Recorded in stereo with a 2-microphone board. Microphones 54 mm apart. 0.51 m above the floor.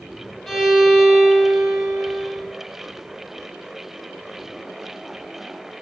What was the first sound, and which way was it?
A violin, centre (ahead or behind).